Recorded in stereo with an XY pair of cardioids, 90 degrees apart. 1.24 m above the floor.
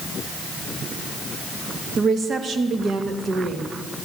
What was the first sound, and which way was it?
A woman speaking, 60° right.